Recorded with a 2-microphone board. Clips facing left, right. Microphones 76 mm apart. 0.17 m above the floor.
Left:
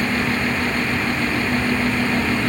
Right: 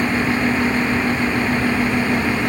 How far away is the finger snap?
No finger snap in this recording.